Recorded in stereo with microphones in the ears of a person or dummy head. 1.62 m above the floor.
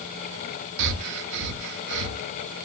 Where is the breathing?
60° right (ahead or behind), 0.5 m.